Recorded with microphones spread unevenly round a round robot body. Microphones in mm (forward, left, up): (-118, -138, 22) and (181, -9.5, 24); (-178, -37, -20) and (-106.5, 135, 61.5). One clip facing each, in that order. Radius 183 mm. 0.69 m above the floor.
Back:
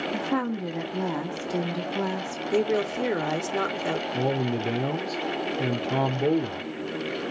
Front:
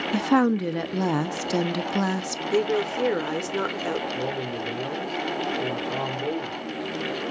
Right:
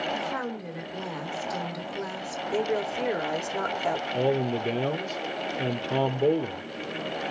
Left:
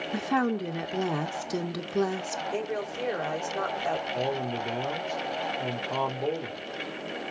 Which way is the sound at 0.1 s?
25° left.